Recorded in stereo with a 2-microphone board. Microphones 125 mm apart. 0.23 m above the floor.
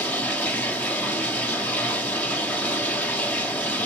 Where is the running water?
15° left (ahead or behind), 1.3 m.